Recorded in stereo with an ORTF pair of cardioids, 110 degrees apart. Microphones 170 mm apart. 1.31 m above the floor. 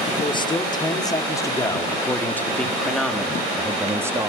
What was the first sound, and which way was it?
A man speaking, 30° left.